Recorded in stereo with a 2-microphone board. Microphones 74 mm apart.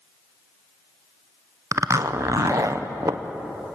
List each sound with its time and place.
1.7 s a zipper: 50° right (ahead or behind), 0.9 m